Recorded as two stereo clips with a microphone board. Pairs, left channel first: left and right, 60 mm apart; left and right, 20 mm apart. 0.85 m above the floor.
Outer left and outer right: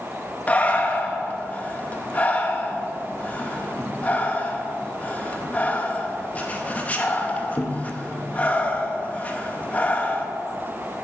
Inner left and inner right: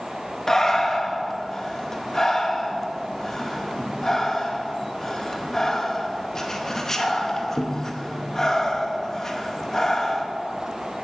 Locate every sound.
0.5 s breathing: 25° left (ahead or behind), 0.7 m